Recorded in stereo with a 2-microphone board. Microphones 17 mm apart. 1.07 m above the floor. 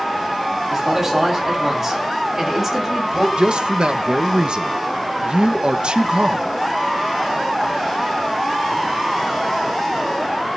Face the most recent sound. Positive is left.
turn(degrees=-60)  # may be behind; listen again after turning